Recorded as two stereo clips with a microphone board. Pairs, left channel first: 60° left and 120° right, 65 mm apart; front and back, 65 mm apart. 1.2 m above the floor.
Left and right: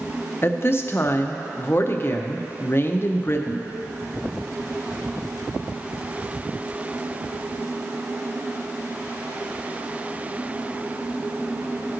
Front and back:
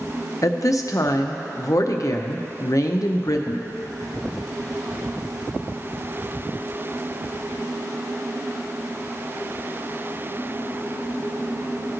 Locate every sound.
0.4 s a woman speaking: 15° left, 0.6 m